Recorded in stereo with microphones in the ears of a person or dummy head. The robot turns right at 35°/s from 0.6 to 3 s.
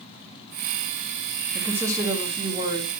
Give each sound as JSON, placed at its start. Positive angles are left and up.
{"t": 1.5, "sound": "a woman speaking", "azimuth_deg": 180, "distance_m": 3.0}